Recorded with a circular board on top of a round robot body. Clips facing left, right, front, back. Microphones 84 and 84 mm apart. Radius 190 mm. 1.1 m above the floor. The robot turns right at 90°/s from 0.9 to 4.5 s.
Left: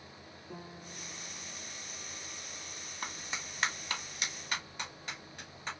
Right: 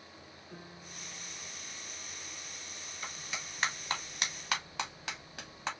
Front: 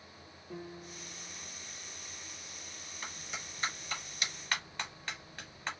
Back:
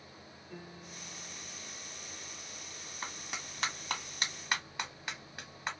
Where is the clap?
125° left, 1.3 m; by 5.7 s 105° right, 1.3 m.